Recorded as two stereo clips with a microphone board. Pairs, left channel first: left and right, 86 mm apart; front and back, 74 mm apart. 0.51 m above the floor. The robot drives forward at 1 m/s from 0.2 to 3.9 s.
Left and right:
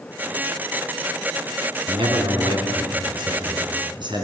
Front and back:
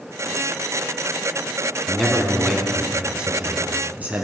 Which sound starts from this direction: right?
A man speaking, at 1.9 s.